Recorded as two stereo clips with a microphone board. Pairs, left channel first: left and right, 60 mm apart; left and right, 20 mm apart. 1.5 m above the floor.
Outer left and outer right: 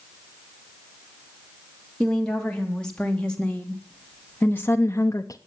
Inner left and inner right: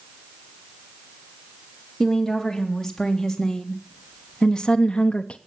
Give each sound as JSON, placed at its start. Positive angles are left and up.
{"t": 2.0, "sound": "a woman speaking", "side_deg": 10, "distance_m": 3.0}